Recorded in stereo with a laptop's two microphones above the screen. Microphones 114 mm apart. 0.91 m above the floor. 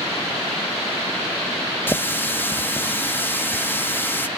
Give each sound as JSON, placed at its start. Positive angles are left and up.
{"t": 1.9, "sound": "a running tap", "side_deg": 20, "distance_m": 0.6}